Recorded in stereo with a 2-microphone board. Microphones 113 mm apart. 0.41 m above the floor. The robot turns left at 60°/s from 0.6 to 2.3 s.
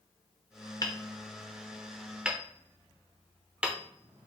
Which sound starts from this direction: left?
Hammering, at 0.8 s.